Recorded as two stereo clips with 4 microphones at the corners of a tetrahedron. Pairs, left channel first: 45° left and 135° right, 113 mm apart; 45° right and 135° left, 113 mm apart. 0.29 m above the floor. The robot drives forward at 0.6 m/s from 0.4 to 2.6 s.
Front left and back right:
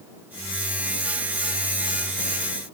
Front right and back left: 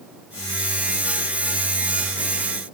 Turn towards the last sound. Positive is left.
No sound to turn to.